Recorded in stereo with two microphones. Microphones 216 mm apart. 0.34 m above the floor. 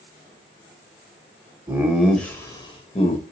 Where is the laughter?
10° right (ahead or behind), 1.1 m; by 3.3 s 40° left (ahead or behind), 1.2 m.